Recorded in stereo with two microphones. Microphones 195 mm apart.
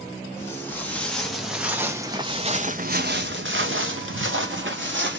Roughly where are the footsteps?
Centre.